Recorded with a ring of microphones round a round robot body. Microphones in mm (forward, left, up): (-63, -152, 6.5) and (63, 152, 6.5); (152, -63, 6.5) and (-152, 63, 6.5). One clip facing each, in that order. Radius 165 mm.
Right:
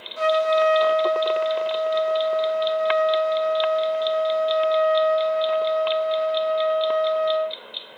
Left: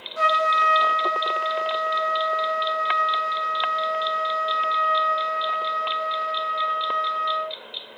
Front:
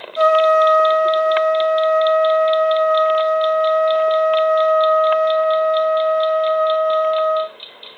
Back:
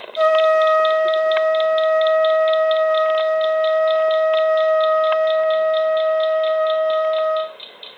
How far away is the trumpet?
About 1.0 m.